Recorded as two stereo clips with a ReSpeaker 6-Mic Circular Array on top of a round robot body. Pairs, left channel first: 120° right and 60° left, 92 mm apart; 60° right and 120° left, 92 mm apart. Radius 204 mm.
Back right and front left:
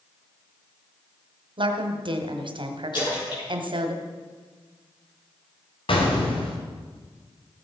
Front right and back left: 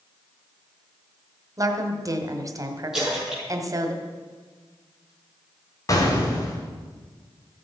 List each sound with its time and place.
1.6 s a woman speaking: 70° left, 1.8 m
2.9 s a splash: 155° right, 6.5 m
5.9 s an explosion: 110° right, 2.5 m